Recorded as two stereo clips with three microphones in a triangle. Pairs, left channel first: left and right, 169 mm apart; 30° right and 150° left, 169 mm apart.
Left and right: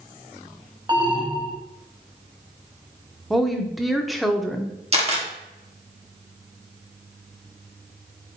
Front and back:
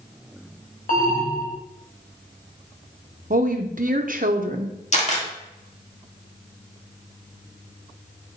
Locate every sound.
0.9 s an alarm: 35° right, 1.3 m
3.3 s a woman speaking: straight behind, 0.8 m
4.9 s a camera shutter: 55° right, 1.5 m